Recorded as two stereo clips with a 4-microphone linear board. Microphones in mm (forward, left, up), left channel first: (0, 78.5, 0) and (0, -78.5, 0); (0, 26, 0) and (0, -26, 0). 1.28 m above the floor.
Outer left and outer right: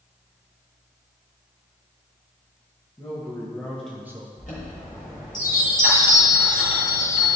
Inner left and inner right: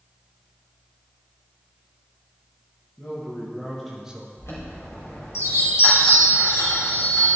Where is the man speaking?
20° left (ahead or behind), 2.0 m; by 4.3 s 30° right (ahead or behind), 0.6 m.